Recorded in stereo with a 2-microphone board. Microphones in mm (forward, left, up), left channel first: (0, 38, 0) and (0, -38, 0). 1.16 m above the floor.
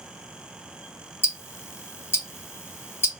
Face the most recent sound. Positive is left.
turn(degrees=30)  # may be behind; listen again after turning